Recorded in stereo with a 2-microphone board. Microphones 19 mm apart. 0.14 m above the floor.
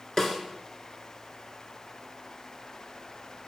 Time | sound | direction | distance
0.2 | a snare drum | 25° left (ahead or behind) | 1.6 m